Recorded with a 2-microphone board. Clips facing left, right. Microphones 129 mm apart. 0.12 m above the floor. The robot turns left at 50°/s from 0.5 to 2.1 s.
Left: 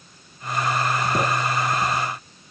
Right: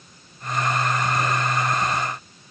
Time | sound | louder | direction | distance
1.1 | writing | left 2 dB | 55° left (ahead or behind) | 4 m